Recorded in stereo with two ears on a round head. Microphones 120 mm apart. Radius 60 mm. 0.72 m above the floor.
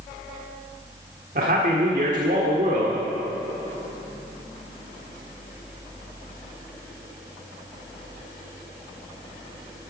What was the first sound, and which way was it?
A man speaking, 65° right (ahead or behind).